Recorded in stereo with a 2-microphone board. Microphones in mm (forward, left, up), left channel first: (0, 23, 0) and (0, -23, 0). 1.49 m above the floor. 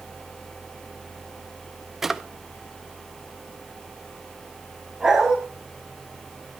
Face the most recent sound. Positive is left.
turn(degrees=-10)  # may be behind; listen again after turning